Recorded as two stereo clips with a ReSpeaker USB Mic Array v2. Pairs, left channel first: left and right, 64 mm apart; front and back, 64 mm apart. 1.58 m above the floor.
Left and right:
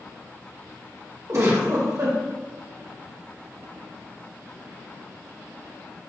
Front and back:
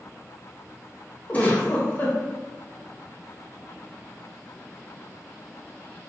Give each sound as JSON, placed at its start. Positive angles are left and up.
{"t": 1.3, "sound": "a giggle", "azimuth_deg": -60, "distance_m": 1.2}